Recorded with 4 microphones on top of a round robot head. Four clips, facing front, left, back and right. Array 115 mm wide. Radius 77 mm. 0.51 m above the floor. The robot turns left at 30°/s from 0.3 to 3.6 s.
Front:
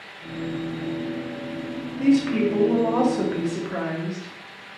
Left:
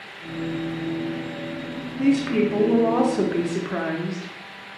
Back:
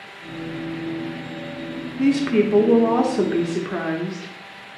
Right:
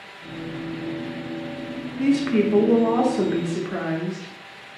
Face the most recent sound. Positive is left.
turn(degrees=140)